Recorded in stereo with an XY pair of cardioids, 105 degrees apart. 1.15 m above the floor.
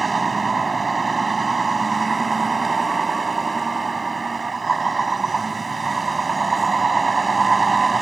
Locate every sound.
0.0 s a vehicle: 30° right